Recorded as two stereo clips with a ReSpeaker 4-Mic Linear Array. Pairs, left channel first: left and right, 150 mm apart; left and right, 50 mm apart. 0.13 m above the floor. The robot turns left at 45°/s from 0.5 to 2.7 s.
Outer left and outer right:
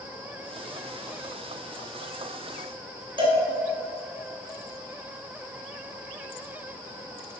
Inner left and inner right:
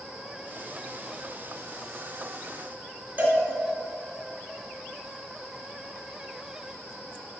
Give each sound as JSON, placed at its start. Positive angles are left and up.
{"t": 3.2, "sound": "a cowbell", "side_deg": -35, "distance_m": 1.6}